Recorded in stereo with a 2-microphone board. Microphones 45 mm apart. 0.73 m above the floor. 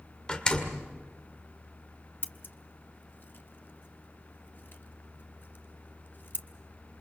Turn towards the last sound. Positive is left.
turn(degrees=55)  # may be behind; listen again after turning